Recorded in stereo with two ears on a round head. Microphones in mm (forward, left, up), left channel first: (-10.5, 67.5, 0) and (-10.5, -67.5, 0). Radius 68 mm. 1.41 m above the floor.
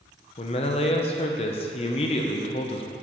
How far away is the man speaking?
About 0.5 m.